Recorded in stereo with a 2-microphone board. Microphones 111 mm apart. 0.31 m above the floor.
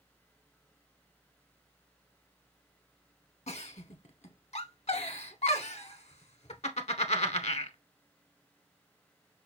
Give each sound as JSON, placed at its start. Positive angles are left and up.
{"t": 3.5, "sound": "a giggle", "side_deg": 70, "distance_m": 0.7}